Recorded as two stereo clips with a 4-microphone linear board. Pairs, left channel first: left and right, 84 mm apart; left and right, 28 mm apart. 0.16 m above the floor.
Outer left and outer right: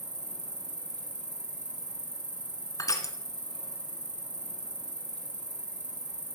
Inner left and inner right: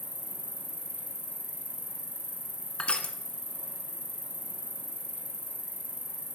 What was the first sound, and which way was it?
An insect, 55° right (ahead or behind).